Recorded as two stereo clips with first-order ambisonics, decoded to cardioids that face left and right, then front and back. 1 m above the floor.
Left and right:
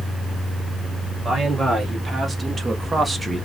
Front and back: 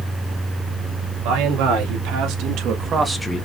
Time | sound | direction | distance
1.2 | a man speaking | 170° right | 2.5 m